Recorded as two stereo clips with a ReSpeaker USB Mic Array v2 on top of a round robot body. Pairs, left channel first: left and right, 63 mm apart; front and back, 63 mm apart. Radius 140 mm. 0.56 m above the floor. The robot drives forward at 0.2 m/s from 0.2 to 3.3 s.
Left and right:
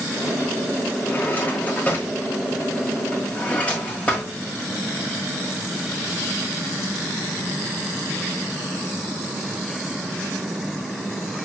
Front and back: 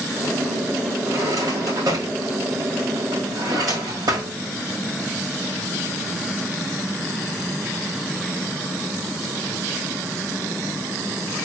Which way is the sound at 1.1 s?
150° left.